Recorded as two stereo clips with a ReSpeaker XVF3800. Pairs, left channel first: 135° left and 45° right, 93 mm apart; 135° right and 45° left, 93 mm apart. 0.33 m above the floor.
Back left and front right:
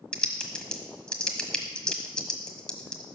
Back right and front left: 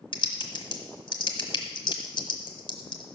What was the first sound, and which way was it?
Typing on a keyboard, 145° right.